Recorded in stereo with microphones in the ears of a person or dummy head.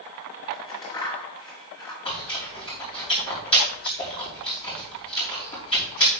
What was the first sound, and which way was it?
Scissors, 25° left (ahead or behind).